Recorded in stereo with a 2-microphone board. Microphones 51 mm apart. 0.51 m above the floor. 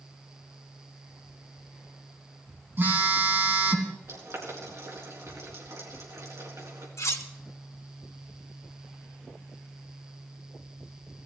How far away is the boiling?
About 4 m.